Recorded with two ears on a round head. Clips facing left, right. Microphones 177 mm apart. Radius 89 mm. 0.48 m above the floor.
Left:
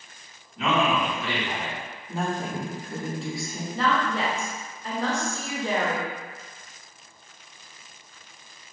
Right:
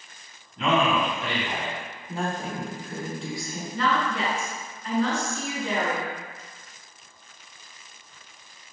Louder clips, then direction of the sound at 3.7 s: Left 1 dB; 30° left (ahead or behind).